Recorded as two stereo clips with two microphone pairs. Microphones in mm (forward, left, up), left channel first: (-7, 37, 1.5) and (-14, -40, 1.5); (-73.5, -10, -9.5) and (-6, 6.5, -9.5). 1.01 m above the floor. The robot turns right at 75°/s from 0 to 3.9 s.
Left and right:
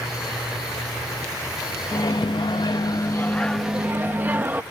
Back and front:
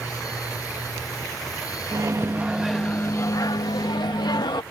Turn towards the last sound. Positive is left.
turn(degrees=-160)